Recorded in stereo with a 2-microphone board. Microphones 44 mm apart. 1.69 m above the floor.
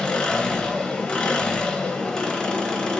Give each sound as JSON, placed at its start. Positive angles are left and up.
{"t": 0.0, "sound": "an engine running", "side_deg": 15, "distance_m": 0.8}